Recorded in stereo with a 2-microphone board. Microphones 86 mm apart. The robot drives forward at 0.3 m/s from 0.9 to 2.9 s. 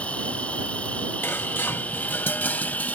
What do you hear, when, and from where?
0.0 s an insect: 15° left (ahead or behind)
1.2 s dishes clattering: 25° left (ahead or behind); by 3.0 s 20° left (ahead or behind)